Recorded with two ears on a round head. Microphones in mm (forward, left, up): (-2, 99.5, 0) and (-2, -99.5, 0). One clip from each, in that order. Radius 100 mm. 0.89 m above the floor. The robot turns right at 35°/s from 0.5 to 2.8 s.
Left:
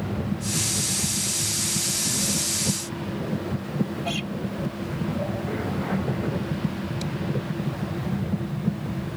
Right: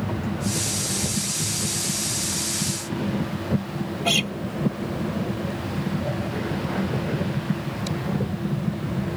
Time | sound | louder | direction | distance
4.0 | a guitar | right 12 dB | 45° right (ahead or behind) | ?